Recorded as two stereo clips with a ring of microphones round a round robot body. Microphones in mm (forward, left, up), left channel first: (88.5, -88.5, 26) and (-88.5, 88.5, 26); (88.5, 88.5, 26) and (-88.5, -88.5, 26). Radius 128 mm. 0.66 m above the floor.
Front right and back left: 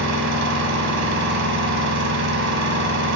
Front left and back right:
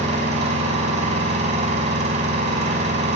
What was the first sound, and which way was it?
An engine running, 160° left.